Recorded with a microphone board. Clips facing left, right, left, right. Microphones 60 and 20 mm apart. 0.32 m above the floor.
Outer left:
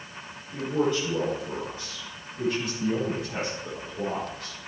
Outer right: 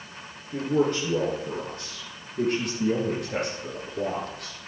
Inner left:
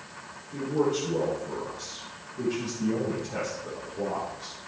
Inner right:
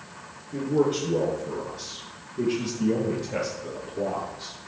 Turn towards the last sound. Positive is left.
turn(degrees=-75)  # may be behind; listen again after turning